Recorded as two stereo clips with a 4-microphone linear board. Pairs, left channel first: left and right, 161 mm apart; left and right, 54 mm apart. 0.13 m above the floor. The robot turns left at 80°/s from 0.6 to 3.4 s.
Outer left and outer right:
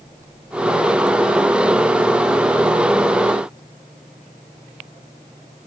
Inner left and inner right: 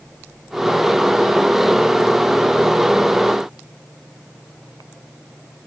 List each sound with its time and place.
Only background noise.